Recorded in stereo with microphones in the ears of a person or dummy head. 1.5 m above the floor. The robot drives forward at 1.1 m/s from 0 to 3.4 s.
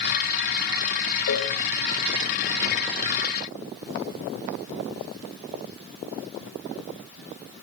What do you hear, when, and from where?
1.3 s a cowbell: 65° left (ahead or behind), 1.7 m; by 1.5 s 55° left (ahead or behind), 1.8 m